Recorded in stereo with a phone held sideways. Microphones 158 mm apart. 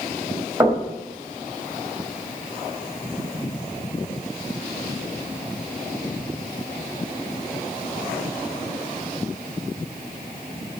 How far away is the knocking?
About 4 m.